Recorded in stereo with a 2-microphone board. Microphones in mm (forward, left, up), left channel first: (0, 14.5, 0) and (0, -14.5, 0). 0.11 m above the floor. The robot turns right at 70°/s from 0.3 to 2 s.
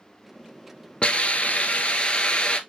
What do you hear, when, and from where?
1.0 s a hiss: 55° left, 0.6 m; by 2.6 s 125° left, 0.6 m